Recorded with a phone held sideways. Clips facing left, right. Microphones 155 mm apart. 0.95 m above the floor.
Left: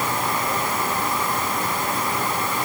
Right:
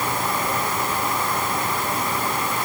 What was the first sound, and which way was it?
Only background noise.